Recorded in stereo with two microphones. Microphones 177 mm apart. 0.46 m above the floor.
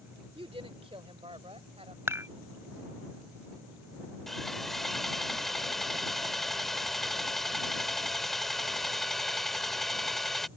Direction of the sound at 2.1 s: 15° right (ahead or behind).